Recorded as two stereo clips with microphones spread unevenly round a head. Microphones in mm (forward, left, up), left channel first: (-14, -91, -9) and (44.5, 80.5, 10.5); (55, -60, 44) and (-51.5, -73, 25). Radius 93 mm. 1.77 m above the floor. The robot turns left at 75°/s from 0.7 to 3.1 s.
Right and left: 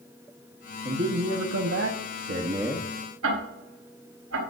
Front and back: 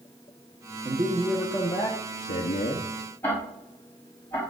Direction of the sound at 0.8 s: 130° left.